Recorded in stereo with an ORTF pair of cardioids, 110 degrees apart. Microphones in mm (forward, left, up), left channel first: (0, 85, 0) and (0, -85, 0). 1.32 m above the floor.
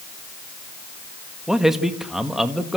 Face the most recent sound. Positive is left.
turn(degrees=-5)